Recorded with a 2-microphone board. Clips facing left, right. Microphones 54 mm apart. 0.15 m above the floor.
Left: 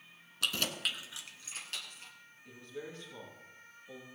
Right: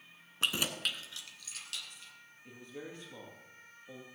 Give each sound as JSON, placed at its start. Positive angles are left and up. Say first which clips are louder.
{"t": 0.4, "sound": "keys jangling", "louder": "right 1 dB", "side_deg": -30, "distance_m": 0.9}
{"t": 2.5, "sound": "a man speaking", "louder": "left 1 dB", "side_deg": -20, "distance_m": 3.5}